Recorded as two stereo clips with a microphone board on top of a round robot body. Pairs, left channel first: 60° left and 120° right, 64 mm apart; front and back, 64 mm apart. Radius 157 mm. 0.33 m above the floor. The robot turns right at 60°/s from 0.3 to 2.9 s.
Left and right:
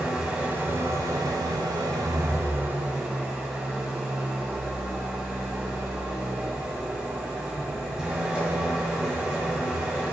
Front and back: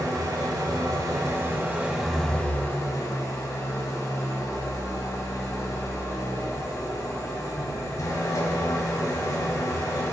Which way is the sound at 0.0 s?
160° left.